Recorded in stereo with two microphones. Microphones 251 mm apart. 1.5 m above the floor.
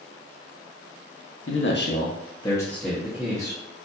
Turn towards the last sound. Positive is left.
turn(degrees=-15)  # may be behind; listen again after turning